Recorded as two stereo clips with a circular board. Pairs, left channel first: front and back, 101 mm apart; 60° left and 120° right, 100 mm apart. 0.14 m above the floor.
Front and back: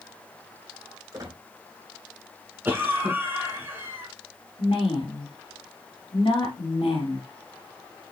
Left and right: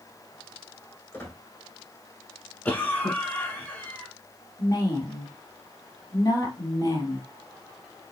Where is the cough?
125° left, 1.3 m.